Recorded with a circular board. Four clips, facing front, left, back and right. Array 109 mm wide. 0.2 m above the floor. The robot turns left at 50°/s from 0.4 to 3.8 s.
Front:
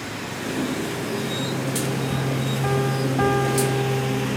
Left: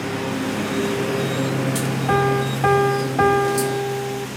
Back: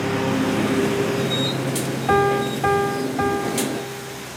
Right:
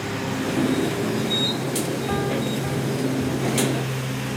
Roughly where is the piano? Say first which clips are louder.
Left 8 dB, back 8 dB; behind left.